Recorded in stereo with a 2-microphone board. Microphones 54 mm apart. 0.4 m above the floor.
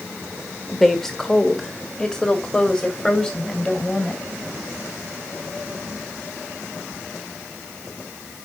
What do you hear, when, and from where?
0.7 s a woman speaking: 5° left (ahead or behind), 1.2 m; by 4.2 s 20° left (ahead or behind), 2.5 m